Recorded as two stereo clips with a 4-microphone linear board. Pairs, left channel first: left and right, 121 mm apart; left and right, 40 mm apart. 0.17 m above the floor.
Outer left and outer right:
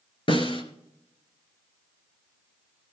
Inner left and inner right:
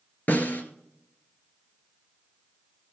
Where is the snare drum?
45° left (ahead or behind), 1.7 m.